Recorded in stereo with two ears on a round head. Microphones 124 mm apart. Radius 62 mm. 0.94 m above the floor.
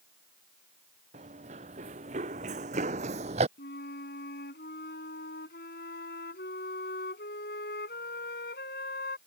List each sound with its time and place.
1.1 s running footsteps: 50° right (ahead or behind)
3.6 s a flute: 80° left